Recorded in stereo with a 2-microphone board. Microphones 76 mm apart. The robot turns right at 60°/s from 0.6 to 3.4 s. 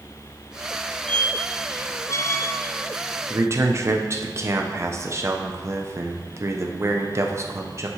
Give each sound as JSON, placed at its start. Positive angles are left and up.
{"t": 1.1, "sound": "a squeak", "side_deg": 15, "distance_m": 0.6}
{"t": 3.3, "sound": "a man speaking", "side_deg": -35, "distance_m": 0.8}